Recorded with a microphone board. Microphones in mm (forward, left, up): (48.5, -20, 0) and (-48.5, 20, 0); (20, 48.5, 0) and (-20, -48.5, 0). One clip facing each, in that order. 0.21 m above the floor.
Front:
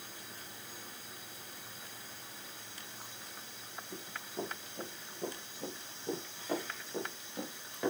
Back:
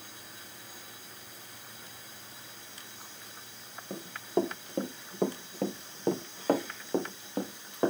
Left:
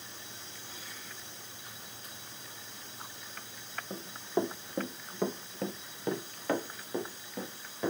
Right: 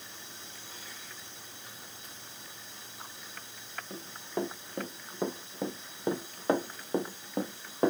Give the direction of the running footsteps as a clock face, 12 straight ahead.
7 o'clock.